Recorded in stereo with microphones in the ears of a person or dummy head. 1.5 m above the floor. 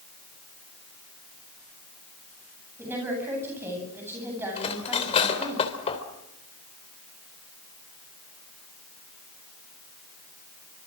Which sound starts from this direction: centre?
A woman speaking, at 2.8 s.